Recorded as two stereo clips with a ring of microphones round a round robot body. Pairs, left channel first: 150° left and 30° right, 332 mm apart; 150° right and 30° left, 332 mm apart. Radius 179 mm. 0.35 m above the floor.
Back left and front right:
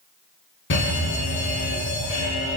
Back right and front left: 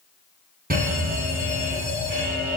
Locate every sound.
0.7 s an alarm: 95° left, 6 m